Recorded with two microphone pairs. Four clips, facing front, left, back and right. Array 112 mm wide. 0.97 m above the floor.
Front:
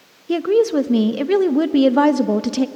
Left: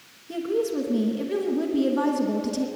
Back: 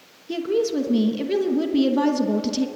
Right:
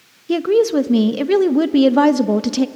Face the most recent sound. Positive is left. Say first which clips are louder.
# right 11 dB, front 6 dB
turn(degrees=-50)